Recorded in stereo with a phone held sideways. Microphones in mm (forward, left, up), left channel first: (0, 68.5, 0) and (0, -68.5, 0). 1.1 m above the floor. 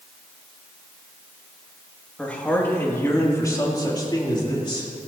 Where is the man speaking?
10° left (ahead or behind), 2 m; by 4.9 s 35° left (ahead or behind), 3.5 m.